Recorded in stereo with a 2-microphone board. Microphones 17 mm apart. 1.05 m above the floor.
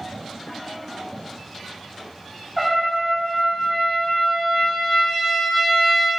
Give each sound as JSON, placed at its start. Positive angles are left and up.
{"t": 2.6, "sound": "a trumpet", "side_deg": -5, "distance_m": 0.7}